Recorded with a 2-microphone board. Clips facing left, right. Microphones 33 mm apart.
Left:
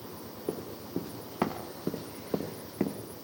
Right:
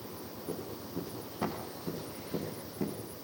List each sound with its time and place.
0.5 s running footsteps: 70° left (ahead or behind), 7 m; by 3.0 s 75° left (ahead or behind), 5.5 m